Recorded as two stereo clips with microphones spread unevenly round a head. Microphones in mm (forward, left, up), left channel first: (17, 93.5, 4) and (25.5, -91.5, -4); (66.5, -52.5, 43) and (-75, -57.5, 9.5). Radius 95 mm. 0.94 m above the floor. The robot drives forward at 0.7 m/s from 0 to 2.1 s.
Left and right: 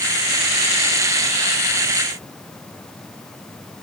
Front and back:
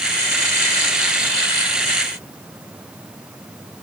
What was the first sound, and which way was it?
Only background noise.